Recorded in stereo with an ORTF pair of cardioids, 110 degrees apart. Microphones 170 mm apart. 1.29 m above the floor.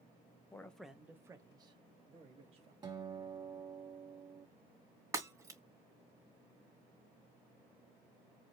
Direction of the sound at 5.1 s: 20° right.